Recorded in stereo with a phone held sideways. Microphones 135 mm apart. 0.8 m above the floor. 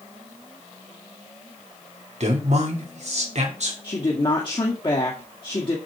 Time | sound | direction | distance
2.2 | a man speaking | 55° right (ahead or behind) | 3 m
3.8 | a woman speaking | 35° left (ahead or behind) | 1.9 m